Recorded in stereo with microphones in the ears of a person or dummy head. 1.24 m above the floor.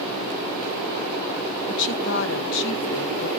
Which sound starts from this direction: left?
A woman speaking, at 1.7 s.